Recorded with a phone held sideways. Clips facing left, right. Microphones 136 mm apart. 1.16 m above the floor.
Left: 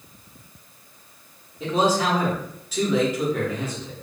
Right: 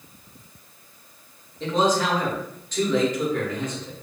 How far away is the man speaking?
About 1.0 m.